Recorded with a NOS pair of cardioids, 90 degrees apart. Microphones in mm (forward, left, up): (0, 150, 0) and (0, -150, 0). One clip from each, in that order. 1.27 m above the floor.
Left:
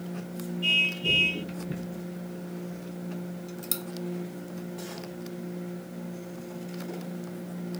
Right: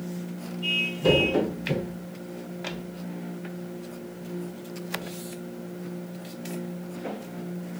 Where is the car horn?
30° left.